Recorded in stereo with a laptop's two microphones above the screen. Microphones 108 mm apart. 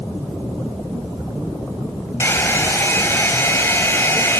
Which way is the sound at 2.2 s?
25° left (ahead or behind).